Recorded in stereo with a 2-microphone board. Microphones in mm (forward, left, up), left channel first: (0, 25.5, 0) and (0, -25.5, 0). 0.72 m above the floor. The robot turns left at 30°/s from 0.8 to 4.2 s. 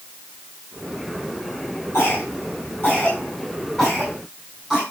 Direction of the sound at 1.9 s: 60° left (ahead or behind).